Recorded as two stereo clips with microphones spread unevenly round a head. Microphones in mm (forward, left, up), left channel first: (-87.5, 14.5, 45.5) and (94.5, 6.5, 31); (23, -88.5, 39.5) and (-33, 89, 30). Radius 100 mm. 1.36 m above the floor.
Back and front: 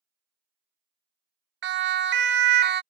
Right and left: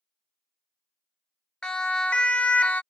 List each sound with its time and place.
1.6 s a siren: 15° left; by 2.8 s 10° left